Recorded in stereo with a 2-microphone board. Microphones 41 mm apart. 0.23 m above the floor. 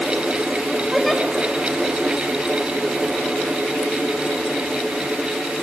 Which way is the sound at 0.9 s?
Centre (ahead or behind).